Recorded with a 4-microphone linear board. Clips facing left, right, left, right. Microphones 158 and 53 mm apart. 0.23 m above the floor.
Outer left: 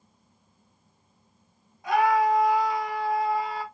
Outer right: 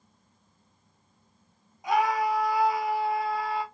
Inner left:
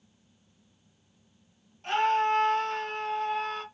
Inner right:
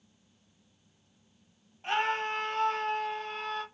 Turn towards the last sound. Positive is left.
turn(degrees=5)  # may be behind; listen again after turning